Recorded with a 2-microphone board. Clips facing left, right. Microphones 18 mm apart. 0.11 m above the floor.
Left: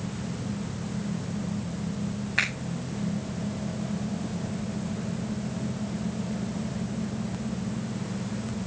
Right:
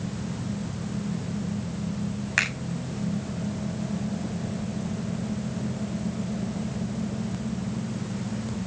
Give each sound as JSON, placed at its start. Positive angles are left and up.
{"t": 2.4, "sound": "a finger snap", "side_deg": -70, "distance_m": 5.5}